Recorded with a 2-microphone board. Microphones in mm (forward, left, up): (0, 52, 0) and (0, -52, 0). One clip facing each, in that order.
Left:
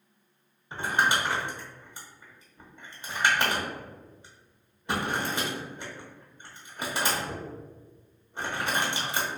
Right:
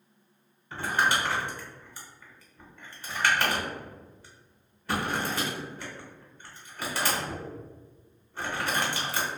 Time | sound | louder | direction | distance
0.7 | crumpling | even | 20° left (ahead or behind) | 0.8 m